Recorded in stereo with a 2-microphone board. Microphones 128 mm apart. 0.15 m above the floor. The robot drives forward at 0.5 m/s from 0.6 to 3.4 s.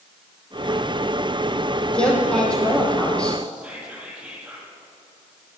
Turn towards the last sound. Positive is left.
turn(degrees=-10)  # may be behind; listen again after turning